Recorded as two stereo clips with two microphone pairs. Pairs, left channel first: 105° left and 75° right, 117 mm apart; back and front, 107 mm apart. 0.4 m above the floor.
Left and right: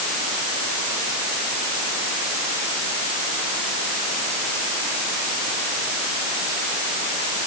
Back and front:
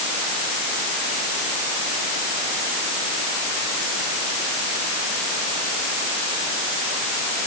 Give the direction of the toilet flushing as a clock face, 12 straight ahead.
No toilet flushing in this recording.